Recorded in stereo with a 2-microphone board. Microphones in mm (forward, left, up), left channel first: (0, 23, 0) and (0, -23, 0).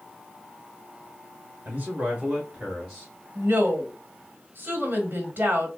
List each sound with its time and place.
1.6 s a man speaking: 35° right (ahead or behind), 1.5 m; by 3.1 s 5° left (ahead or behind), 2.5 m
3.4 s a woman speaking: 50° right (ahead or behind), 1.5 m